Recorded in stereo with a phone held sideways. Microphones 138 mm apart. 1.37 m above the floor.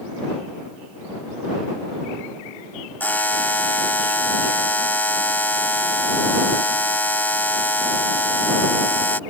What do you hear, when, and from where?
3.0 s a buzzer: 15° left (ahead or behind)